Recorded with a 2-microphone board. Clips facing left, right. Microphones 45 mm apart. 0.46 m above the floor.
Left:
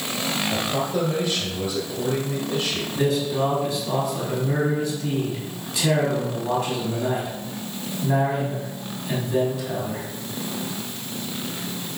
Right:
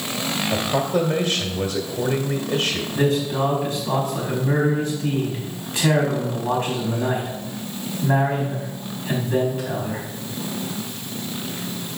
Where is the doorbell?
No doorbell in this recording.